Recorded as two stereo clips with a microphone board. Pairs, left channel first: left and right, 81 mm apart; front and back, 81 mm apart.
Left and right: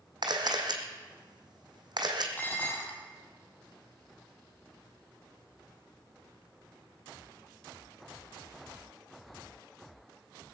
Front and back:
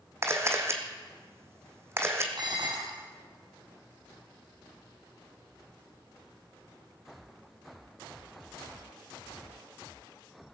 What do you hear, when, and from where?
0.2 s a camera shutter: 120° right, 1.8 m
2.4 s dishes clattering: 155° left, 2.5 m